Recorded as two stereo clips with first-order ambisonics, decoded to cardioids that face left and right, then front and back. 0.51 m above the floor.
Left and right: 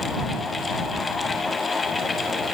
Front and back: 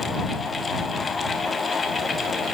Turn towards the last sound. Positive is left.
No sound to turn to.